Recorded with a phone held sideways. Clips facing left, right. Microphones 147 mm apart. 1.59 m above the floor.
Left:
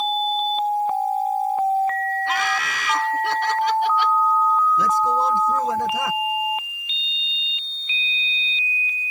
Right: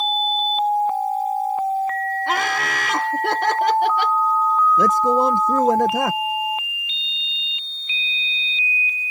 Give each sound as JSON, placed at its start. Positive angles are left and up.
{"t": 2.3, "sound": "laughter", "side_deg": -55}
{"t": 4.8, "sound": "a man speaking", "side_deg": -55}